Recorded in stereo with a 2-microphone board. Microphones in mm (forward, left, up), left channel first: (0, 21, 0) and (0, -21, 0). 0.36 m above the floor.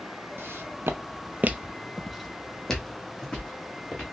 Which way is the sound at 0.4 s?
65° right (ahead or behind).